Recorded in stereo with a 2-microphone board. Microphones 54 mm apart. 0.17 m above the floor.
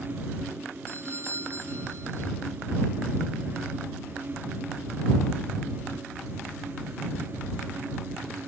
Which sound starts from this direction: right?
A doorbell, at 0.9 s.